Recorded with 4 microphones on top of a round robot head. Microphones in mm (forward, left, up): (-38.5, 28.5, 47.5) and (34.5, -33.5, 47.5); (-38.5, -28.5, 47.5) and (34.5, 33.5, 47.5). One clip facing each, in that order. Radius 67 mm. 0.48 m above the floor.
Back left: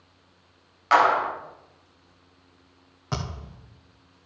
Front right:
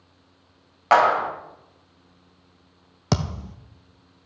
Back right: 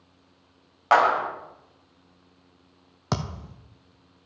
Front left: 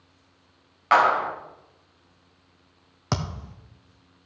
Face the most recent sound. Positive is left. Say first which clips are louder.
# front right 7 dB, even
turn(degrees=-55)